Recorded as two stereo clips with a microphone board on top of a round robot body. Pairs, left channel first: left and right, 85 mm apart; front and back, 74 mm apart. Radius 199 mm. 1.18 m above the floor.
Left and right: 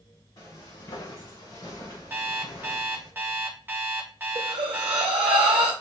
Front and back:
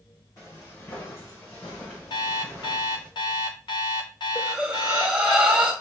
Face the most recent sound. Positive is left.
turn(degrees=-100)